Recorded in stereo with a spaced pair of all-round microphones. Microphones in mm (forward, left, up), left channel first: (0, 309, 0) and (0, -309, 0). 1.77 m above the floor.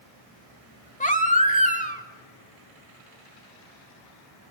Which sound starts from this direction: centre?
A baby crying, at 1.0 s.